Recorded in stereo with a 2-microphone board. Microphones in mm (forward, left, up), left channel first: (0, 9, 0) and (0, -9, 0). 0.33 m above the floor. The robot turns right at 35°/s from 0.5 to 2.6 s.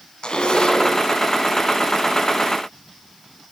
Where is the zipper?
60° left (ahead or behind), 3 m; by 1.0 s 45° left (ahead or behind), 3 m.